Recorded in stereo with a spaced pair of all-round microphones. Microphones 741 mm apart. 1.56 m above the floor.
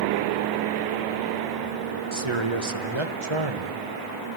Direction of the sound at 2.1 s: 40° right (ahead or behind).